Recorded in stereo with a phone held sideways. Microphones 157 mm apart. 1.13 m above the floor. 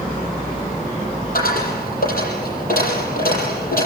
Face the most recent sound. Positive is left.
turn(degrees=70)  # may be behind; listen again after turning